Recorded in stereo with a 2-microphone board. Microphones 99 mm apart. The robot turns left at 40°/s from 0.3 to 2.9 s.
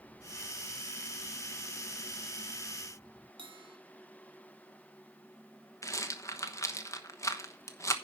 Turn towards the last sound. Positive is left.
turn(degrees=30)  # may be behind; listen again after turning